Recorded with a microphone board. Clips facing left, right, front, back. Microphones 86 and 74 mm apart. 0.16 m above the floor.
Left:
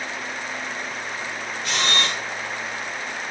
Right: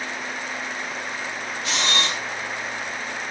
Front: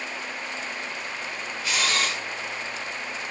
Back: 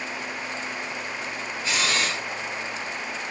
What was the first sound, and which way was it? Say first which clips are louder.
A camera shutter: left 1 dB, even; 120° left.